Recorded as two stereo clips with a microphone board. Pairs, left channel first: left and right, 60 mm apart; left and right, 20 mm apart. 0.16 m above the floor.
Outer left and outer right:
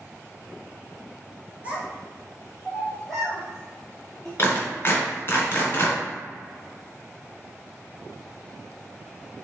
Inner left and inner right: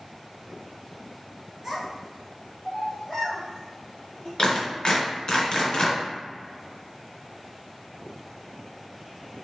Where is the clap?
40° left (ahead or behind), 1.5 m.